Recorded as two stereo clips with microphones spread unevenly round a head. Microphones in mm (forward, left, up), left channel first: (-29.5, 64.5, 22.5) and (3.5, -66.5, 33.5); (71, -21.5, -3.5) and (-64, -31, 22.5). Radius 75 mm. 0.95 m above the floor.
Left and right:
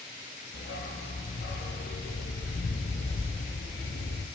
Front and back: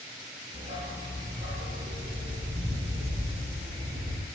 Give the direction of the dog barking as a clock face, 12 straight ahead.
8 o'clock.